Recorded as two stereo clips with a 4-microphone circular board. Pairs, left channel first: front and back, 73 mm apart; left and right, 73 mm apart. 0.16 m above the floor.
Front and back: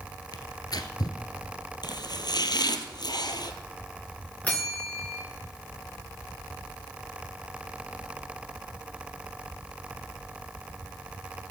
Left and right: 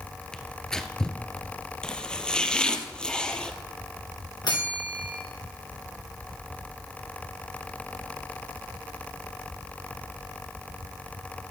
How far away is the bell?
About 4 m.